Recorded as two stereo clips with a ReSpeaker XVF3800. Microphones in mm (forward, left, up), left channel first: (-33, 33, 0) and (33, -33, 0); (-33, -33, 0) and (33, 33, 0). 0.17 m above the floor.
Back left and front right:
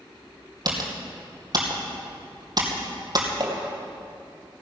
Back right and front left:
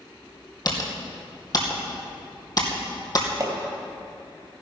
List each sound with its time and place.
0.7 s typing on a keyboard: 90° right, 2.5 m
3.4 s hammering: 5° right, 3 m